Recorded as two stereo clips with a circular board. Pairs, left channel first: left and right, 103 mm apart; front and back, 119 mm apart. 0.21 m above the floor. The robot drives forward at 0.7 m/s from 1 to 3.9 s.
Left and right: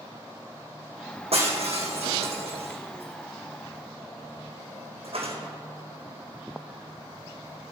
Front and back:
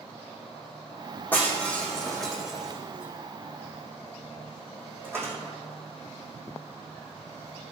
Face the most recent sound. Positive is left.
turn(degrees=-110)